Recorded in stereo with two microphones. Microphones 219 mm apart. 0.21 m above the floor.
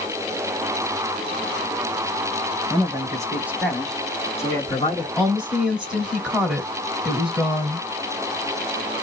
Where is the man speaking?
25° right (ahead or behind), 1.4 m; by 5.1 s 25° left (ahead or behind), 1.8 m.